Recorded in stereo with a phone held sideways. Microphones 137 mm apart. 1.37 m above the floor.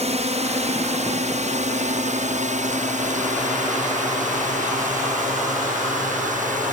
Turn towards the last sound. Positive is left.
turn(degrees=-70)  # may be behind; listen again after turning